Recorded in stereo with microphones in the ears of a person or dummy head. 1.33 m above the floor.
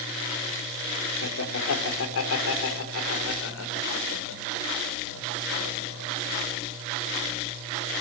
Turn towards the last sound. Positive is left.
turn(degrees=75)  # may be behind; listen again after turning